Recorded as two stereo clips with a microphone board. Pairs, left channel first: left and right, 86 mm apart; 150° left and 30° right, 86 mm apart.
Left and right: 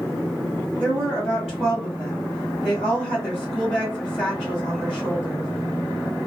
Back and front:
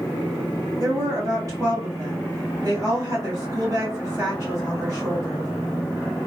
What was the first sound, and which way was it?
A woman speaking, straight ahead.